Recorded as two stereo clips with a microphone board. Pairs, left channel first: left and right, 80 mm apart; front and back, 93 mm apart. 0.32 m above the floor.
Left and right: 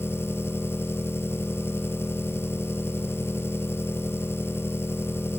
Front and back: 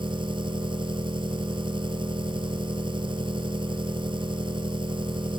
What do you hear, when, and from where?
0.0 s an engine running: 150° left